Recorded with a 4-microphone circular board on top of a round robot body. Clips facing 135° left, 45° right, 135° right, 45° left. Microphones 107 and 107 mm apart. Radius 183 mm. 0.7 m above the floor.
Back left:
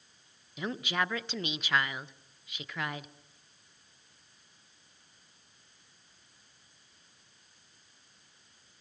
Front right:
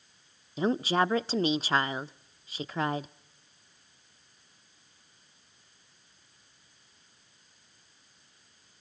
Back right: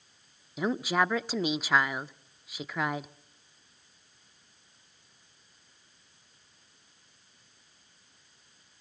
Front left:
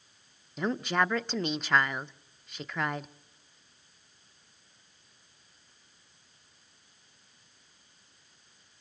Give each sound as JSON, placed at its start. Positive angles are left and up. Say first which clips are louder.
{"t": 0.6, "sound": "a woman speaking", "louder": "front right 7 dB, back right 1 dB", "azimuth_deg": -55, "distance_m": 0.6}